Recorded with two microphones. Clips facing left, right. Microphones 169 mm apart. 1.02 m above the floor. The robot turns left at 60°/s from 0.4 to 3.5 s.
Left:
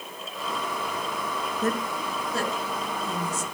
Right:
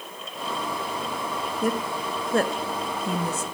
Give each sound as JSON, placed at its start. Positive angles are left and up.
{"t": 1.6, "sound": "a woman speaking", "side_deg": -10, "distance_m": 1.2}